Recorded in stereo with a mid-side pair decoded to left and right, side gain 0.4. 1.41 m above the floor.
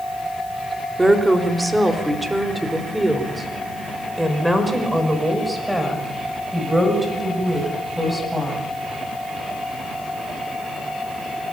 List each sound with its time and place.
1.0 s a woman speaking: 20° right, 3.5 m; by 8.6 s 5° right, 8.5 m